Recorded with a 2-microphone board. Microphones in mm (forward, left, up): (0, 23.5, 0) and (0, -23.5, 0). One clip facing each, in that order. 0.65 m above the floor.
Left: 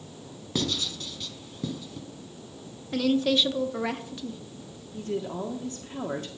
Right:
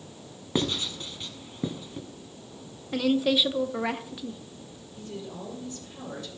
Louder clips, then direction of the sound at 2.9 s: Even; 10° right (ahead or behind).